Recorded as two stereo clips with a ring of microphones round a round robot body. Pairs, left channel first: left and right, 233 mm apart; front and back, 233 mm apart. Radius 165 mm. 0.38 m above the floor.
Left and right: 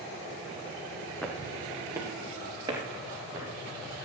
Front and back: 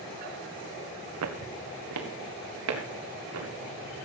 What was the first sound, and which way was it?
Footsteps, 175° left.